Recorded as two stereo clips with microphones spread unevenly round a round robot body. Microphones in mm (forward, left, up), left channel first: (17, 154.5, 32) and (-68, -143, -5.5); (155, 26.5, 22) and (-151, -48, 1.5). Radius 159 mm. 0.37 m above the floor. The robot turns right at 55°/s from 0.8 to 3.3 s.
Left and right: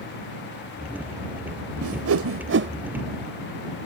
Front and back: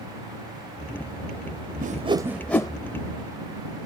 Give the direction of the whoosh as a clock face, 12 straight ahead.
4 o'clock.